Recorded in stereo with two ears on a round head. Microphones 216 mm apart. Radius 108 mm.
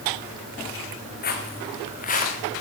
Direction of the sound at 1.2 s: 40° left (ahead or behind).